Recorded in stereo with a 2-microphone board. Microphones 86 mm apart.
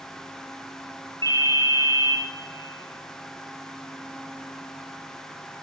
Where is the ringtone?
40° left (ahead or behind), 0.9 m.